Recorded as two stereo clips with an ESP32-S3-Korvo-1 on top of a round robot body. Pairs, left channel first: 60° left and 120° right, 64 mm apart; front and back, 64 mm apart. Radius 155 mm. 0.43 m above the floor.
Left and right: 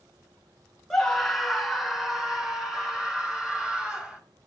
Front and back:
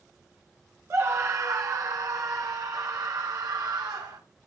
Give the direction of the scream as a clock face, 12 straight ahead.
7 o'clock.